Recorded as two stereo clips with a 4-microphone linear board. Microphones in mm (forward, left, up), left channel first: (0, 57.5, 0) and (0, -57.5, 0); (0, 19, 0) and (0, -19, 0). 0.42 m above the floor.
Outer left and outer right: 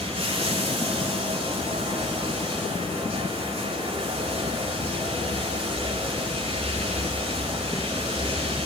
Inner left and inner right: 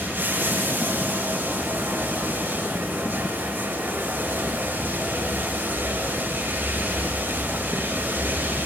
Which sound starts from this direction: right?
Running water, at 0.0 s.